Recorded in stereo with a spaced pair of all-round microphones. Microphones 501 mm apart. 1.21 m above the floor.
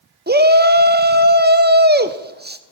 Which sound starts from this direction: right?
A shout, at 0.3 s.